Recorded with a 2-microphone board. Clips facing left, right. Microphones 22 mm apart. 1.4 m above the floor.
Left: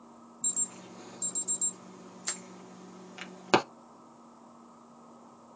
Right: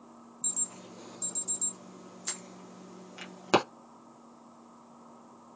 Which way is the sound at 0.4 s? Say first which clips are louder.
Even; 10° left (ahead or behind).